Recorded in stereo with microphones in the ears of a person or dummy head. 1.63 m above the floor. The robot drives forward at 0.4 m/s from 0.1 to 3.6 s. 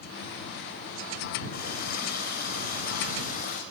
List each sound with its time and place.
1.5 s a running tap: 55° left (ahead or behind), 5.5 m; by 3.6 s 45° left (ahead or behind), 6 m